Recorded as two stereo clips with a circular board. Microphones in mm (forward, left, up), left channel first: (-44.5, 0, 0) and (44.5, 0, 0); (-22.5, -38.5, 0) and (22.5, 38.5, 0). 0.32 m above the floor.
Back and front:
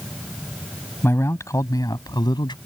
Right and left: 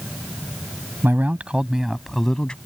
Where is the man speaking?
120° left; by 2.6 s 160° left.